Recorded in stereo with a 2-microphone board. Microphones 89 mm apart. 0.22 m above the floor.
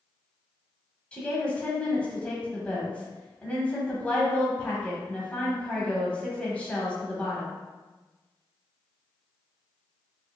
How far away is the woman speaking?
About 1.0 m.